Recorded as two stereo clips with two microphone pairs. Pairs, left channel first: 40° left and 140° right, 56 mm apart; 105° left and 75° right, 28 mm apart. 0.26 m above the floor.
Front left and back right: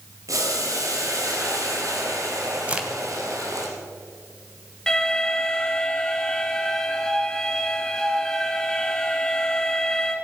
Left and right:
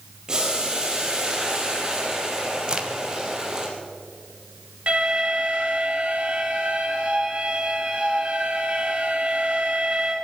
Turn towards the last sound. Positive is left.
turn(degrees=-35)